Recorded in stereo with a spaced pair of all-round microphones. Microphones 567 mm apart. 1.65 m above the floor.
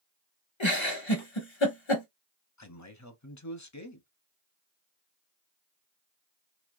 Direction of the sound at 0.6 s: 50° left (ahead or behind).